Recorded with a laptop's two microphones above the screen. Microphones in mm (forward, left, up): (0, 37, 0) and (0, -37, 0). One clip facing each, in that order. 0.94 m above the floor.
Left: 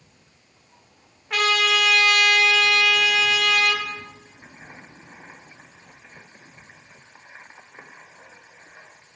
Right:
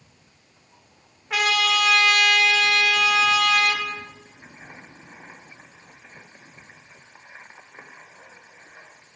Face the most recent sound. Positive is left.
turn(degrees=-5)  # may be behind; listen again after turning